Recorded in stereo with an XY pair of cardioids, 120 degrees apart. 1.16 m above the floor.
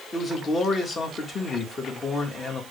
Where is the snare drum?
No snare drum in this recording.